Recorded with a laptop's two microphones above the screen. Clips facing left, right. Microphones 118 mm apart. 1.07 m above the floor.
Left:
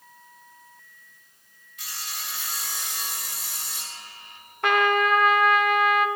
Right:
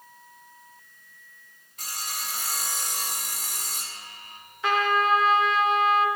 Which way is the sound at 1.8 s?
45° right (ahead or behind).